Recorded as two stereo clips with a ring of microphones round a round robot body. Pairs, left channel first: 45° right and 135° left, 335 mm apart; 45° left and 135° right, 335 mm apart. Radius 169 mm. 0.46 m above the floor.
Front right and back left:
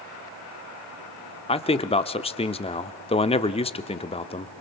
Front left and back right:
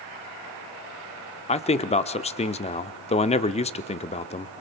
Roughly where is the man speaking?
Ahead.